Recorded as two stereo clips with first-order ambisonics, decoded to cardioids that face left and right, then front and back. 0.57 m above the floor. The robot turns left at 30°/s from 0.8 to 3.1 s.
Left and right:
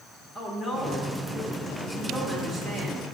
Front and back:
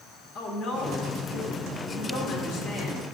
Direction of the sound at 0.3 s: 25° left.